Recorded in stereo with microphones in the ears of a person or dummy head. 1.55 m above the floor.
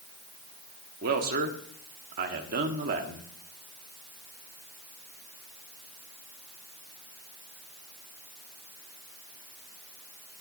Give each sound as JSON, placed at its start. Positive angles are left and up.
{"t": 1.0, "sound": "a man speaking", "side_deg": -50, "distance_m": 1.3}